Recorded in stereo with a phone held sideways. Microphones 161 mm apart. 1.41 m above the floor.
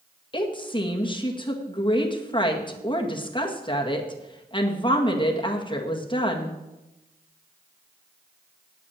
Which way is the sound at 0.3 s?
30° left (ahead or behind).